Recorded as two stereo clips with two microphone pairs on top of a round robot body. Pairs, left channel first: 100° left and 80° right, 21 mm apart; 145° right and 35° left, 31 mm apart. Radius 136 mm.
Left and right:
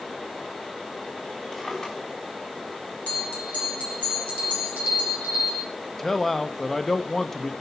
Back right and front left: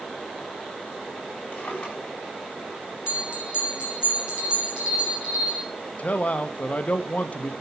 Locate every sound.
1.5 s a drawer: 150° left, 4.5 m
3.1 s a bell: 90° left, 4.5 m
6.0 s a man speaking: 175° left, 0.8 m